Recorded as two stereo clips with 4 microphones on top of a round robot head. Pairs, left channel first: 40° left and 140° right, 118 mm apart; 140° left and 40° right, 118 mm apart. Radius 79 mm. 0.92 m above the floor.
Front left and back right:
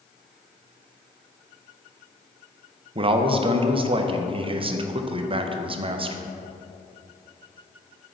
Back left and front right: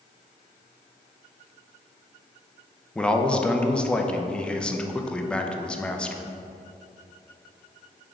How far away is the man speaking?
About 0.6 m.